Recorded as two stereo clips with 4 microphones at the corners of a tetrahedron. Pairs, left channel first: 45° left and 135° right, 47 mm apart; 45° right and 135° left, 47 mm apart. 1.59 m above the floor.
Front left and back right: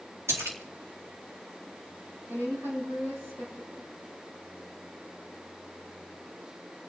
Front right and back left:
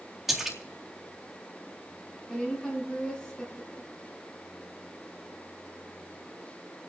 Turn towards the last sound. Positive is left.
turn(degrees=-125)